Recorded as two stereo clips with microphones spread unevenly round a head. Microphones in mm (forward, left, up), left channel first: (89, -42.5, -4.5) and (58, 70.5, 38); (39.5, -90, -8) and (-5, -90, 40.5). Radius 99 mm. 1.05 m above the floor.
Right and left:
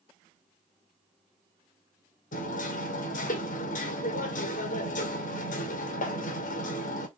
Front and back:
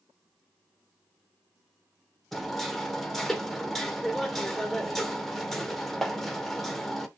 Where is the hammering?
90° right, 2.5 m.